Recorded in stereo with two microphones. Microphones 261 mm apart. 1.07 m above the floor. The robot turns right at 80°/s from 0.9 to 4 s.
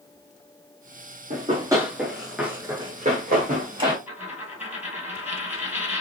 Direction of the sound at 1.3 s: 30° right (ahead or behind).